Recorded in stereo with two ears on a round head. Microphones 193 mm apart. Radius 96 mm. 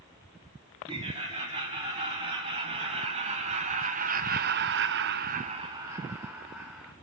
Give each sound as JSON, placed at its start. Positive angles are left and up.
{"t": 0.9, "sound": "laughter", "side_deg": -20, "distance_m": 3.5}